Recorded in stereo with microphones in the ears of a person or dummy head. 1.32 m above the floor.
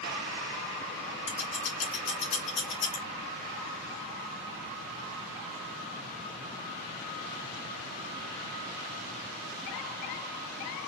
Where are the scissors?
35° left (ahead or behind), 0.7 m.